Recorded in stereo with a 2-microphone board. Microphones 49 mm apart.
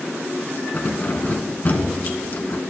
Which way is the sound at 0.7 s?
40° left (ahead or behind).